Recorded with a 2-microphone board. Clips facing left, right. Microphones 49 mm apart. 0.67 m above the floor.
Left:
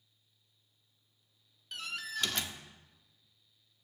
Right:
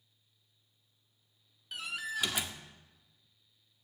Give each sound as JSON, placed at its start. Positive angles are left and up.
{"t": 1.7, "sound": "a door slam", "side_deg": -10, "distance_m": 0.7}